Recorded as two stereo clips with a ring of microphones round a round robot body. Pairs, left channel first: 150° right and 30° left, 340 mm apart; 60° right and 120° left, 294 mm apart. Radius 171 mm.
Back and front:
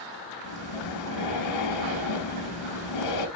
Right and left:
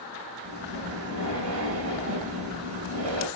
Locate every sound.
0.4 s breathing: 175° left, 2.5 m